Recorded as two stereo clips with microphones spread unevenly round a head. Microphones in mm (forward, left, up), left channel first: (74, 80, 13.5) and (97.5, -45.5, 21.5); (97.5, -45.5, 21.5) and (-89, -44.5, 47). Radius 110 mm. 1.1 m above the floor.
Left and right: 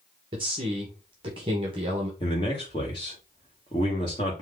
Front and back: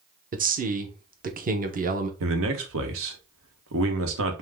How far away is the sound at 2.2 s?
About 1.1 m.